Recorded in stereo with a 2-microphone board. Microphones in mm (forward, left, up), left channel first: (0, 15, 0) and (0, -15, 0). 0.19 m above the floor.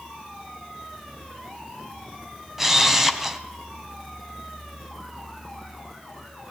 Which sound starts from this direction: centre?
A camera shutter, at 2.6 s.